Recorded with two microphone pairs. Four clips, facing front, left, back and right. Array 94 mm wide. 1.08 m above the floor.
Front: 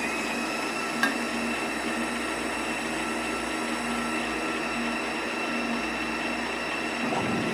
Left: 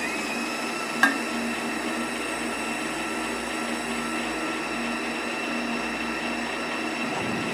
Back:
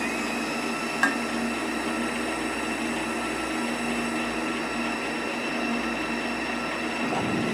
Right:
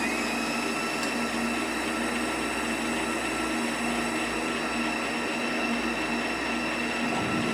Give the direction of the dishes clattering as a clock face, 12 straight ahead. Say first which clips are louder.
Left 7 dB, back 3 dB; 8 o'clock.